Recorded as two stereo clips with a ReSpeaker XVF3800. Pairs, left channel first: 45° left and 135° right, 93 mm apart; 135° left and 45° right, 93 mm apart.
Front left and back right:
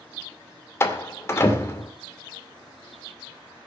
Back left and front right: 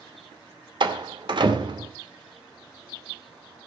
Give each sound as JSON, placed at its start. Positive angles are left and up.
{"t": 0.8, "sound": "a door slam", "azimuth_deg": -15, "distance_m": 2.5}